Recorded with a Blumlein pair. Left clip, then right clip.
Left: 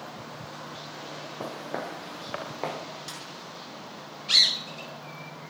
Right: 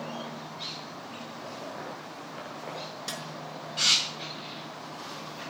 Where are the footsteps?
45° left, 5.5 m; by 2.8 s 35° left, 6.5 m.